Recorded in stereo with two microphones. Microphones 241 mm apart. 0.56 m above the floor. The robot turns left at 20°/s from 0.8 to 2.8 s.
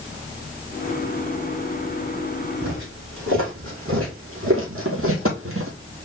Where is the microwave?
I don't hear a microwave.